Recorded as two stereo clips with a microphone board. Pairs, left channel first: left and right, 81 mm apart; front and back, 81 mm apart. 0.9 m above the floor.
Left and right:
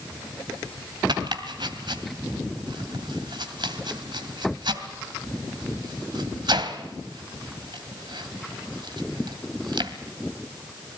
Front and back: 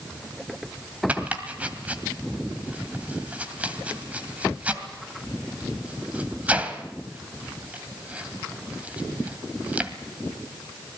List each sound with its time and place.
1.1 s chopping: 105° right, 2 m